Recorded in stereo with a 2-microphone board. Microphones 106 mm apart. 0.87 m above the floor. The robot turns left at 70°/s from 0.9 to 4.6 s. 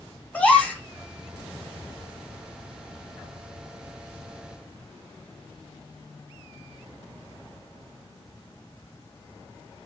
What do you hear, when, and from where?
0.3 s a gasp: 10° left (ahead or behind), 3 m